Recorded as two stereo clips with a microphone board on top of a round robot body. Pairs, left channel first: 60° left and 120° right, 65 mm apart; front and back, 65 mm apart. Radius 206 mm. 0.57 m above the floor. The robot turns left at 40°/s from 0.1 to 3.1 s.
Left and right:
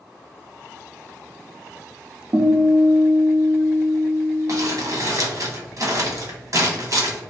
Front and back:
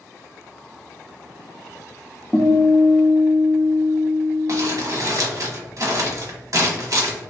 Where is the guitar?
85° right, 0.8 m; by 4.7 s 115° right, 0.8 m.